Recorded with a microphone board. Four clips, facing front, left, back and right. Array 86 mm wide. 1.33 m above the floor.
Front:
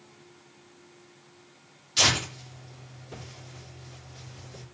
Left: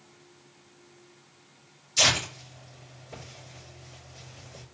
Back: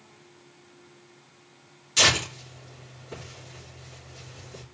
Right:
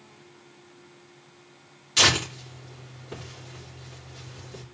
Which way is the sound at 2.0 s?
105° right.